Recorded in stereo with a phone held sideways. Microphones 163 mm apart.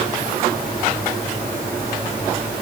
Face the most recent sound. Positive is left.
No sound to turn to.